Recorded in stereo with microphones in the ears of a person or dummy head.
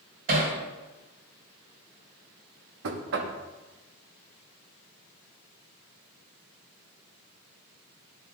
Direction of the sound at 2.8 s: 70° right (ahead or behind).